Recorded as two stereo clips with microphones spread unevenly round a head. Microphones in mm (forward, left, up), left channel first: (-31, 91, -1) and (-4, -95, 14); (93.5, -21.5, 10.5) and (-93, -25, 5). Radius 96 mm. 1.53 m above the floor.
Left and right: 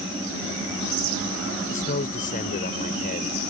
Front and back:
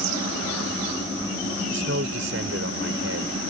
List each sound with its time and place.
1.7 s a man speaking: 145° left